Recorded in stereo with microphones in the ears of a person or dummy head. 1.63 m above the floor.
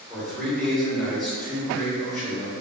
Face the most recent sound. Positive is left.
turn(degrees=0)  # may be behind; listen again after turning